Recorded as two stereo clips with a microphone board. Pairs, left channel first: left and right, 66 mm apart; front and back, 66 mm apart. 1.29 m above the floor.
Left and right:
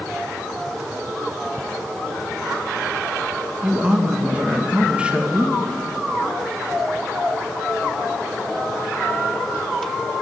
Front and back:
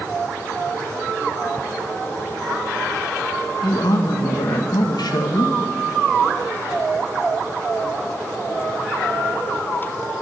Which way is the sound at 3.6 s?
15° right.